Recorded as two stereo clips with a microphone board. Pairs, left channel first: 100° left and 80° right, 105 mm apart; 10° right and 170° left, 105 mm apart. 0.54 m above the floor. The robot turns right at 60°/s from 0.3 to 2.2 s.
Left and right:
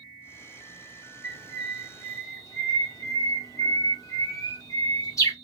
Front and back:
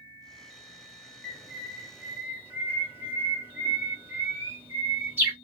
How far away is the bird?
About 1.4 m.